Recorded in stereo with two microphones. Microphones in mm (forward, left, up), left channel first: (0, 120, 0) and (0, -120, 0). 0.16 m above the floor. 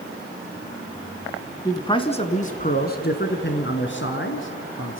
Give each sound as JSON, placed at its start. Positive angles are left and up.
{"t": 1.6, "sound": "a man speaking", "side_deg": 15, "distance_m": 1.4}